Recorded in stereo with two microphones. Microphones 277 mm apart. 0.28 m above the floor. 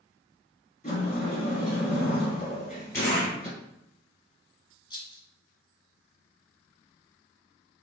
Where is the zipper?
10° left (ahead or behind), 1.9 m.